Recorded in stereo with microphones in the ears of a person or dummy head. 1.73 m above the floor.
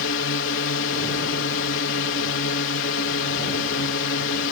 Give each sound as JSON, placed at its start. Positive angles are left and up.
{"t": 0.0, "sound": "a drone", "side_deg": 60}